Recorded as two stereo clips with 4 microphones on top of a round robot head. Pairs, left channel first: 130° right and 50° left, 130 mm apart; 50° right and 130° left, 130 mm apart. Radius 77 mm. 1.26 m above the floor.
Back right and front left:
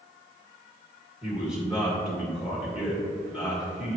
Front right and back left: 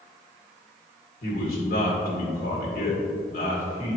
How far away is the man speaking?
About 2 m.